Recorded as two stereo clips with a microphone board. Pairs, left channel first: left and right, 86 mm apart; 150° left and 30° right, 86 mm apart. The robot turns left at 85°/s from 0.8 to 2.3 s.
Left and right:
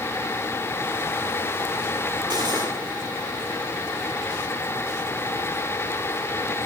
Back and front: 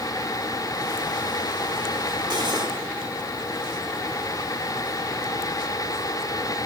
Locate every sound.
2.3 s cutlery clinking: 60° right, 2.5 m